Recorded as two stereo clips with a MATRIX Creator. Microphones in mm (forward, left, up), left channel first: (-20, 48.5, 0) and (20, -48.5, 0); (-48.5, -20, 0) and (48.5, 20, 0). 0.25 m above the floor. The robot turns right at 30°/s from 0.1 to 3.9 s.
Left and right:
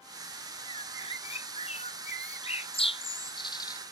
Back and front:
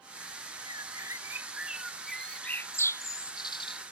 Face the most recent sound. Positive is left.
turn(degrees=170)